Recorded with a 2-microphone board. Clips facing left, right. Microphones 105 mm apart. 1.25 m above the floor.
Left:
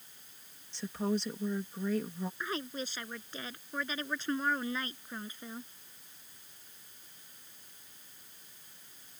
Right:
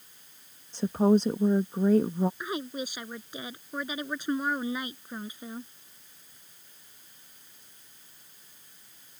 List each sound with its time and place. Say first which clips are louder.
0.7 s a woman speaking: right 11 dB; 45° right (ahead or behind)
2.4 s a woman speaking: right 4 dB; 15° right (ahead or behind)